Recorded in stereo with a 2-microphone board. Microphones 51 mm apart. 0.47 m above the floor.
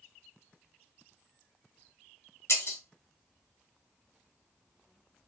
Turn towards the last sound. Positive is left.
turn(degrees=60)  # may be behind; listen again after turning